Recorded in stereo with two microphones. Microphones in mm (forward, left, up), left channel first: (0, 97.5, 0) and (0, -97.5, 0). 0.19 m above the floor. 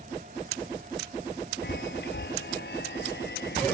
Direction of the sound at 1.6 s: 60° left (ahead or behind).